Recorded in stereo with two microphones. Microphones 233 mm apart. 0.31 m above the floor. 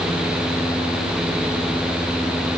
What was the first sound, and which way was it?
Only background noise.